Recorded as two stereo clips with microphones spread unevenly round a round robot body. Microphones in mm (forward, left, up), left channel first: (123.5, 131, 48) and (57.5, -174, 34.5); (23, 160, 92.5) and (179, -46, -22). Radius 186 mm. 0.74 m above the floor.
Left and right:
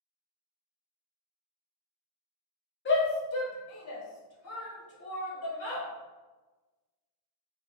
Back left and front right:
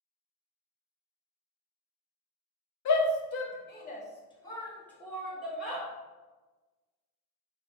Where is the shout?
120° left, 0.6 m; by 5.9 s 25° left, 1.7 m.